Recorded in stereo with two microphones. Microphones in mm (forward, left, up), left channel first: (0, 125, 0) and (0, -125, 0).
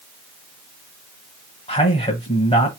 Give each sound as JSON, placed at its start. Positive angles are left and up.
{"t": 1.7, "sound": "a man speaking", "side_deg": 25, "distance_m": 1.2}